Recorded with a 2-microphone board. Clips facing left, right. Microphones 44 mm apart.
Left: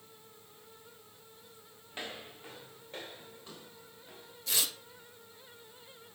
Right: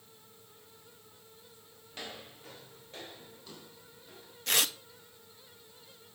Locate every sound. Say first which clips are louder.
1.9 s footsteps: left 2 dB; 20° left (ahead or behind), 1.8 m; by 4.3 s 25° left (ahead or behind), 4 m
4.5 s tearing paper: right 5 dB; 55° right (ahead or behind), 0.8 m